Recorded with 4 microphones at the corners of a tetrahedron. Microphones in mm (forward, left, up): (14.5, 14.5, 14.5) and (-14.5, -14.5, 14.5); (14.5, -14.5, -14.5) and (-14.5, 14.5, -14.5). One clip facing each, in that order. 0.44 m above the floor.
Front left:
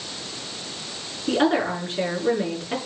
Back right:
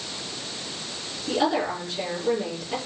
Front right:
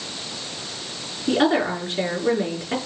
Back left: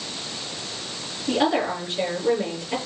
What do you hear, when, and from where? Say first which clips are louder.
1.3 s a woman speaking: front left 3 dB, front right 2 dB; 5° right, 5.5 m